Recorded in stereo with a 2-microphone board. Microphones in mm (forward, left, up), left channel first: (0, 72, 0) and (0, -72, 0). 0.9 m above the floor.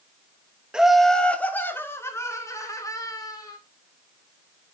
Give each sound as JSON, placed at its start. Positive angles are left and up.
{"t": 0.7, "sound": "laughter", "side_deg": -5, "distance_m": 1.1}